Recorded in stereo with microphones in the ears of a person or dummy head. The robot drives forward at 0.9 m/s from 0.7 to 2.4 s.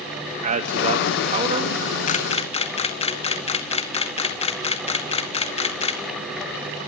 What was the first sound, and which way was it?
A man speaking, 40° right (ahead or behind).